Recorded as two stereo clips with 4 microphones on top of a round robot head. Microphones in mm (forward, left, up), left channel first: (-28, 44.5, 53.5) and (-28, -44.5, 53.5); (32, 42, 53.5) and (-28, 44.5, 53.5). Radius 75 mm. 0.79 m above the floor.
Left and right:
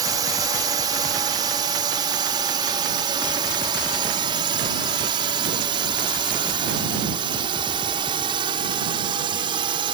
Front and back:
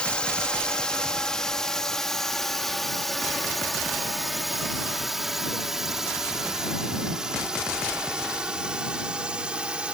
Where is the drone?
70° right; by 10.0 s 105° right.